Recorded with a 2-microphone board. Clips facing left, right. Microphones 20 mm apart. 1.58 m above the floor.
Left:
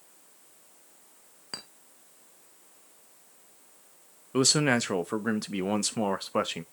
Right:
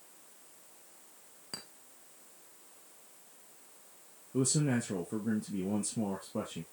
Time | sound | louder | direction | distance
1.5 | a clink | left 5 dB | 30° left (ahead or behind) | 1.0 m
4.3 | a man speaking | left 7 dB | 85° left | 0.6 m